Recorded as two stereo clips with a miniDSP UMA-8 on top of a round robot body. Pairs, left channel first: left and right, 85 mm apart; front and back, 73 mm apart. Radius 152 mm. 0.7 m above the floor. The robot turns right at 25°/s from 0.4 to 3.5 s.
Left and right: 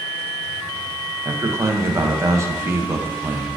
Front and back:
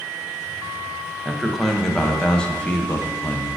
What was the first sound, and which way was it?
A man speaking, 100° right.